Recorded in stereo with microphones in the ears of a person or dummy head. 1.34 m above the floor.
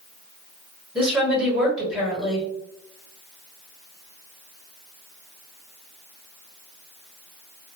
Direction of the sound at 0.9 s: 5° right (ahead or behind).